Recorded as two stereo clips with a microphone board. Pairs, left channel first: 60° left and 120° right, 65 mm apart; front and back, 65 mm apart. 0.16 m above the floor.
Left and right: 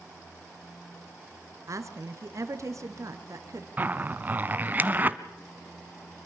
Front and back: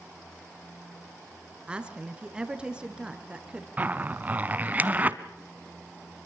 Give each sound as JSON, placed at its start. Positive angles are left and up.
{"t": 1.7, "sound": "a woman speaking", "azimuth_deg": -110, "distance_m": 2.5}
{"t": 3.8, "sound": "a zipper", "azimuth_deg": -145, "distance_m": 1.0}